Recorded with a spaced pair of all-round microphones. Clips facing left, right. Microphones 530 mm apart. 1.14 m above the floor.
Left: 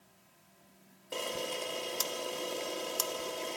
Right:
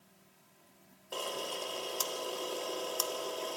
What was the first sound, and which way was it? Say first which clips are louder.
A camera shutter: left 2 dB; 45° left (ahead or behind).